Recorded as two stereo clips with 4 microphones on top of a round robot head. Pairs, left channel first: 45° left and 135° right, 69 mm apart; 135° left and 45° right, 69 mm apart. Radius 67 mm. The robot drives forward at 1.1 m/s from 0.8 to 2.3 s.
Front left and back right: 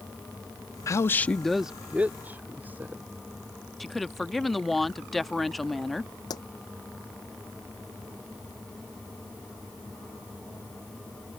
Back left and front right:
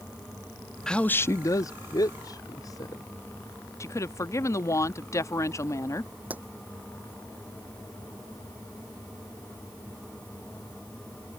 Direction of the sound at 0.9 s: 55° left.